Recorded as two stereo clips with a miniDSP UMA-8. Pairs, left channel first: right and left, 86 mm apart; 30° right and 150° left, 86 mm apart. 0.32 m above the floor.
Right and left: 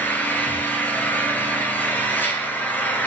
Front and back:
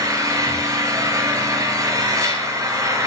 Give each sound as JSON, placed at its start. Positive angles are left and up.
{"t": 0.0, "sound": "an engine running", "azimuth_deg": -160, "distance_m": 5.0}